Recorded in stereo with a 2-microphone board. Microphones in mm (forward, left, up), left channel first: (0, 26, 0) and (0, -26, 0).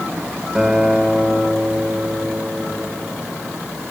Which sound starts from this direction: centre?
A guitar, at 0.6 s.